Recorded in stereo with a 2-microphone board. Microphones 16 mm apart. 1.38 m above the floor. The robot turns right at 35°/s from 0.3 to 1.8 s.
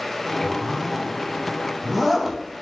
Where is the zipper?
15° left (ahead or behind), 0.7 m; by 2.4 s 5° right (ahead or behind), 0.7 m.